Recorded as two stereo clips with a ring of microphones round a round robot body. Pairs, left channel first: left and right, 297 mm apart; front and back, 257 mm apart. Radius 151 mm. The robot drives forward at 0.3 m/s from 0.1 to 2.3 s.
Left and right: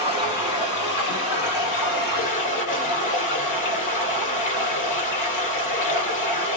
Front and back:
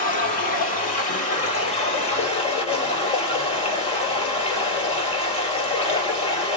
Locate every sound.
0.0 s running water: 60° left, 4 m; by 6.6 s 65° left, 3.5 m